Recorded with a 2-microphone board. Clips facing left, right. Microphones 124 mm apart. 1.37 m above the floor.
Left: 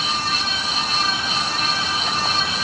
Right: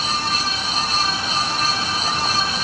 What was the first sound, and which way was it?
Only background noise.